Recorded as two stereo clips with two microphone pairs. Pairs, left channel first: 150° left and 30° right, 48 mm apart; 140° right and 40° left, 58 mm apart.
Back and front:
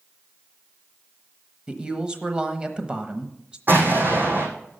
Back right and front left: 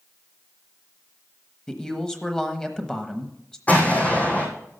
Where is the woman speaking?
75° right, 1.0 m.